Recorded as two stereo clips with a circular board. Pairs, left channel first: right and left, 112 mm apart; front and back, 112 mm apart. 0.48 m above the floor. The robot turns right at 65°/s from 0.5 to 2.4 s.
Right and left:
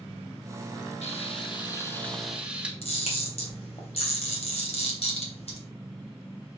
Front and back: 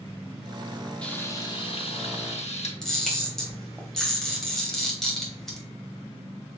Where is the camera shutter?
85° right, 3 m.